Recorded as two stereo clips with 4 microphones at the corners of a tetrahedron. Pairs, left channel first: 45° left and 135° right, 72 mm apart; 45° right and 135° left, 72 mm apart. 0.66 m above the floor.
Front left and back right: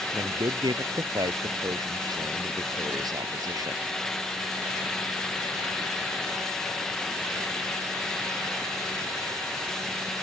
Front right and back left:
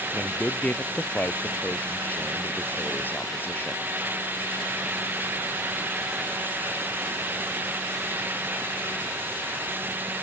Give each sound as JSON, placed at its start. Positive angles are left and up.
{"t": 0.1, "sound": "a man speaking", "azimuth_deg": -115}